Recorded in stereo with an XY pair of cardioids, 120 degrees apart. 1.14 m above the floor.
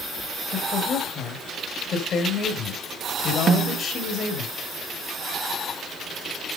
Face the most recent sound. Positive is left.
turn(degrees=-45)